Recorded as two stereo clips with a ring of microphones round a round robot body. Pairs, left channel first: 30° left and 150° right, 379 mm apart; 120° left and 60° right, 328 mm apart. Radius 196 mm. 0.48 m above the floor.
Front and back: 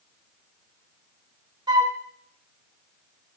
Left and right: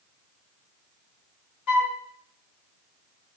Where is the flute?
130° left, 1.8 m.